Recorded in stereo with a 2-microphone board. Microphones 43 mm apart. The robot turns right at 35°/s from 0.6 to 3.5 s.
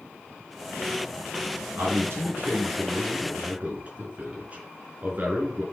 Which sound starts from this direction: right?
A man speaking, at 1.8 s.